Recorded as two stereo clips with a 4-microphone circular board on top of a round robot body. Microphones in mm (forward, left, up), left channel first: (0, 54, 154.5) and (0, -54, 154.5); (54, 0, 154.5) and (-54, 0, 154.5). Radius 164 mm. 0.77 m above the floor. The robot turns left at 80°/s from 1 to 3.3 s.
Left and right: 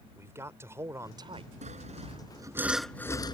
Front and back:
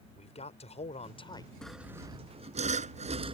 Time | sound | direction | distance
0.2 | a man speaking | 25° right | ?
1.6 | sawing | 85° right | ?